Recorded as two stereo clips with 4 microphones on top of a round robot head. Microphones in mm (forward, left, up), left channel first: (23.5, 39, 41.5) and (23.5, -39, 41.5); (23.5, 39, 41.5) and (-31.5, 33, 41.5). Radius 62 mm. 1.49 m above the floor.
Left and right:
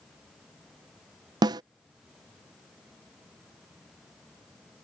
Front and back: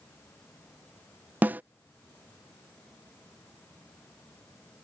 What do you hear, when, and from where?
1.4 s a snare drum: 115° right